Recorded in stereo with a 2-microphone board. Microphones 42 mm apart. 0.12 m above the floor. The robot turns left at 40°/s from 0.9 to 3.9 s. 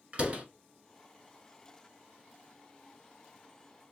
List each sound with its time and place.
0.1 s a door slam: 30° right (ahead or behind), 1.0 m